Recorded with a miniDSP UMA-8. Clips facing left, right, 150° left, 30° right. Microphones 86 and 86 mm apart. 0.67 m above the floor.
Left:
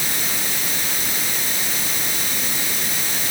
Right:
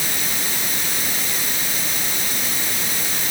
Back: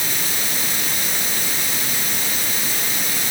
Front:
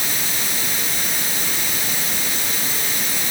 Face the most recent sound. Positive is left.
No sound to turn to.